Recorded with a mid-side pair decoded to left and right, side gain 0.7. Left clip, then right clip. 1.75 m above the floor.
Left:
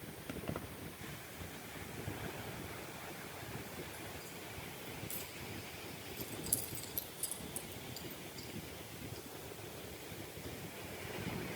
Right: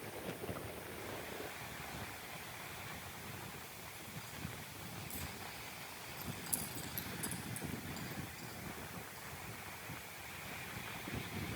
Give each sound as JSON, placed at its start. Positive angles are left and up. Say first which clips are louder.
{"t": 0.3, "sound": "keys jangling", "louder": "left 5 dB", "azimuth_deg": 30, "distance_m": 3.0}